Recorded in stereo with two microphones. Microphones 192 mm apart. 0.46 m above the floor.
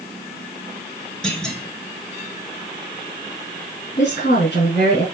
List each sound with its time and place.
1.2 s a clunk: 5° left (ahead or behind), 2.5 m
4.0 s a woman speaking: 75° left (ahead or behind), 4.5 m